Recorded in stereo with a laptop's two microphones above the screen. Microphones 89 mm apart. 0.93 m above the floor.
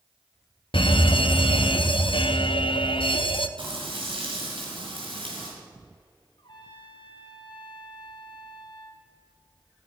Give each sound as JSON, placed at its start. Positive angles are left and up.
{"t": 0.7, "sound": "an alarm", "side_deg": 75, "distance_m": 0.6}
{"t": 3.6, "sound": "frying", "side_deg": -80, "distance_m": 5.0}
{"t": 6.4, "sound": "a trumpet", "side_deg": 65, "distance_m": 2.0}